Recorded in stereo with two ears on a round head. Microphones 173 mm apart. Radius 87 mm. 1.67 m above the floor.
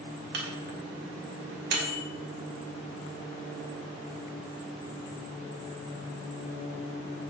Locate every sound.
0.3 s a microwave: 55° right (ahead or behind), 1.9 m